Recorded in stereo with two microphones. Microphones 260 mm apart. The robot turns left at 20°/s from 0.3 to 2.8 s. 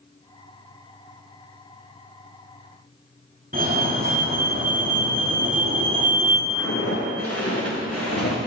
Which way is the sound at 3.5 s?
35° right (ahead or behind).